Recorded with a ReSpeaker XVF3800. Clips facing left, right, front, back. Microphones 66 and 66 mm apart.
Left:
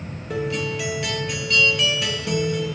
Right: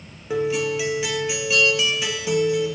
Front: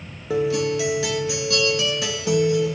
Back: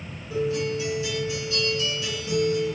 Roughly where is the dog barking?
No dog barking in this recording.